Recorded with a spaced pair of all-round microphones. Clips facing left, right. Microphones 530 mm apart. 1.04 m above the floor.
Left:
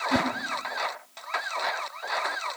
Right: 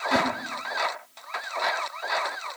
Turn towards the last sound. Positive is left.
turn(degrees=30)  # may be behind; listen again after turning